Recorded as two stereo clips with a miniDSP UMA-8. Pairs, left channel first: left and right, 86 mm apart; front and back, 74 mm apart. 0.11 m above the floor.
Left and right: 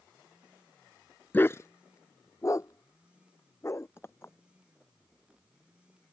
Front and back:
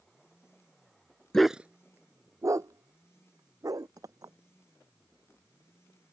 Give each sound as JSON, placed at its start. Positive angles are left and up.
{"t": 1.3, "sound": "a dog barking", "azimuth_deg": 70}
{"t": 4.0, "sound": "a clink", "azimuth_deg": 150}